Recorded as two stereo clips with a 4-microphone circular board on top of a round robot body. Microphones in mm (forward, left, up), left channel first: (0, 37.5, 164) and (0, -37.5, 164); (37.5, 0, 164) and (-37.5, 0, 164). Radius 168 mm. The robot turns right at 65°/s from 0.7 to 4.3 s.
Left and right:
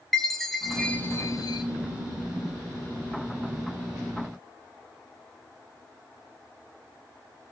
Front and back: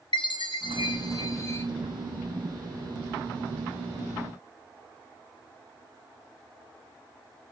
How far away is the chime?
About 2.5 m.